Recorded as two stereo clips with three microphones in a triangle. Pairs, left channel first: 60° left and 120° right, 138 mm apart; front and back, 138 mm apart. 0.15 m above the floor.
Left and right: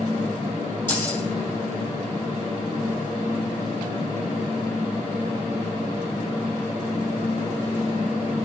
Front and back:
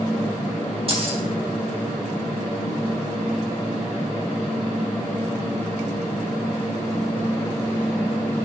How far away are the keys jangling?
About 3 m.